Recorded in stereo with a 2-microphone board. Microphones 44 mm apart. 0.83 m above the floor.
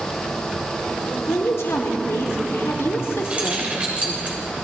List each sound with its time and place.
1.1 s a woman speaking: 70° left (ahead or behind), 2.5 m; by 4.2 s 55° left (ahead or behind), 1.9 m
3.2 s keys jangling: 30° right (ahead or behind), 2.5 m